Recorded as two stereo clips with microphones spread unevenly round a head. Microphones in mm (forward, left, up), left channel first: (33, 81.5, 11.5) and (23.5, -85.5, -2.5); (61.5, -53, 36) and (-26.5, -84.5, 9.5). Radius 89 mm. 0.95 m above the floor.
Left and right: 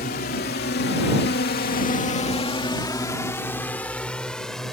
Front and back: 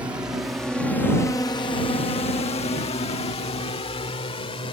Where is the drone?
130° left; by 4.7 s straight ahead.